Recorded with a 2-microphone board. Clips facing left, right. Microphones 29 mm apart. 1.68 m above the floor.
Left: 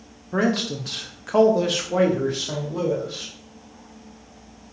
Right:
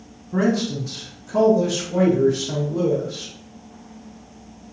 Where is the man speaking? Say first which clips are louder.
Right 2 dB; 50° left (ahead or behind), 0.6 m; by 3.3 s 30° left (ahead or behind), 1.5 m.